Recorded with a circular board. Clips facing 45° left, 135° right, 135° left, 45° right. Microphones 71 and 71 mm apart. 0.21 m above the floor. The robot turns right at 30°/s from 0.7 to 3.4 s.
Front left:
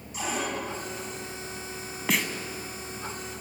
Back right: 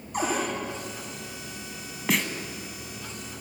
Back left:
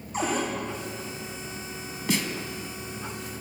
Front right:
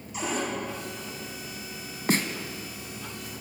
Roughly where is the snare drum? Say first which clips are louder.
Back right 1 dB, front right 2 dB; ahead right.